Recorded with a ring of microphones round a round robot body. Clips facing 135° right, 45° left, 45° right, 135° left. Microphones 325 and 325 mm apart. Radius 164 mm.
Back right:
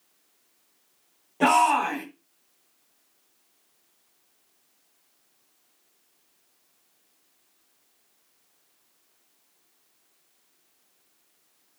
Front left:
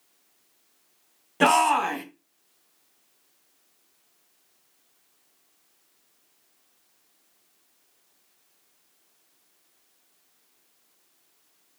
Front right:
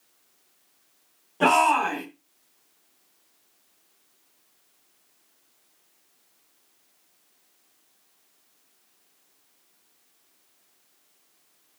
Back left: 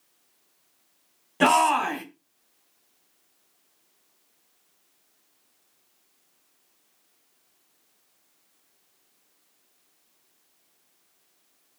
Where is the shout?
95° left, 3 m.